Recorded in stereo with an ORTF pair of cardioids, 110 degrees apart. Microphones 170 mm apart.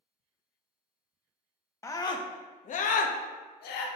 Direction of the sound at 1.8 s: 15° left.